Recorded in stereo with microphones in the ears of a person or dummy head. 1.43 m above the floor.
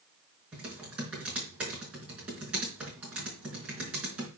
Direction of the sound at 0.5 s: 5° right (ahead or behind).